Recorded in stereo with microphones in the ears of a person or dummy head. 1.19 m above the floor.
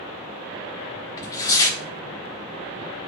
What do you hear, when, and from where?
1.2 s tearing paper: 20° left (ahead or behind), 1.4 m